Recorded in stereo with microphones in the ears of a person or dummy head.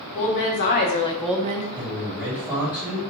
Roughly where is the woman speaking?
Left.